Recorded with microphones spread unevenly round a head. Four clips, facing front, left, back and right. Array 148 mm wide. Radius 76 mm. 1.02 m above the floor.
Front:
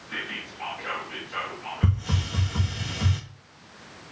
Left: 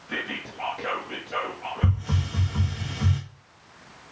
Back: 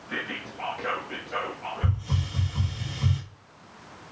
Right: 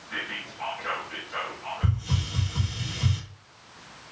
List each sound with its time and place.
0.1 s whispering: 115° left, 1.2 m
1.8 s a hiss: 35° left, 1.8 m